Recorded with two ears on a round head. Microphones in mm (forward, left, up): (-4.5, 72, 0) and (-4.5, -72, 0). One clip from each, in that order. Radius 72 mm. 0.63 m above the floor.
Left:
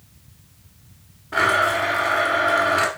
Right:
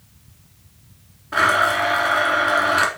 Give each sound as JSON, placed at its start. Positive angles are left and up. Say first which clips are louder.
{"t": 1.3, "sound": "a blender", "louder": "right 2 dB", "side_deg": -20, "distance_m": 1.8}